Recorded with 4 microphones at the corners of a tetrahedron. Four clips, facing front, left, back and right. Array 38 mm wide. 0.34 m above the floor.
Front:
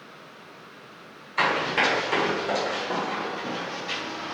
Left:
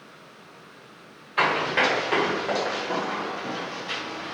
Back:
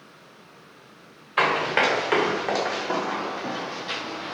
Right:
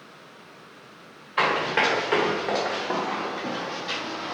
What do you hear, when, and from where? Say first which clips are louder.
1.4 s running footsteps: even, back 2 dB; 170° right, 1.8 m; by 4.3 s 110° right, 0.8 m